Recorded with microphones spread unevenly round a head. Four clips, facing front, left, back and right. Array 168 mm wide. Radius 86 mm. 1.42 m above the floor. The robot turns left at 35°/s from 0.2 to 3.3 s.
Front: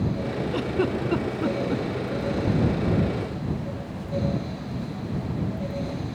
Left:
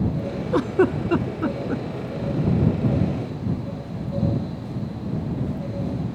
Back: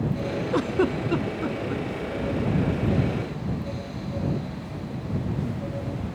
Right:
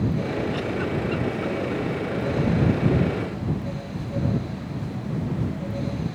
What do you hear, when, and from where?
0.5 s a giggle: 110° left; by 1.8 s 65° left